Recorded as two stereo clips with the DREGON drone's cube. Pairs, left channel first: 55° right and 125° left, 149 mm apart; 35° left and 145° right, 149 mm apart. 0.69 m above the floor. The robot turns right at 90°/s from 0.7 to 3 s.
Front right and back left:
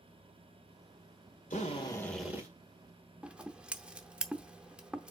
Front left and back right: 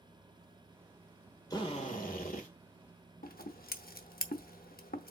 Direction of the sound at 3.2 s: 40° left.